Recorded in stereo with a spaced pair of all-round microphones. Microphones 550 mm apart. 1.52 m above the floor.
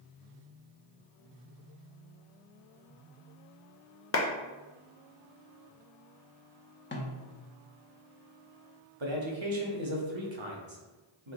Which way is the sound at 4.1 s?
25° left (ahead or behind).